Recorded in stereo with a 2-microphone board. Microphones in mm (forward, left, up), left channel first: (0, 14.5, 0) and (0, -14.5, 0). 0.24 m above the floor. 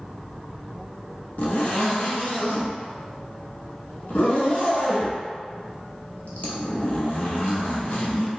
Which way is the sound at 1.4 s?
60° left (ahead or behind).